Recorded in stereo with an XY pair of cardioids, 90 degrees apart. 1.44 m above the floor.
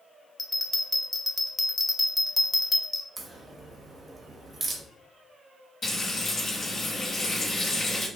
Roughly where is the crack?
Ahead right.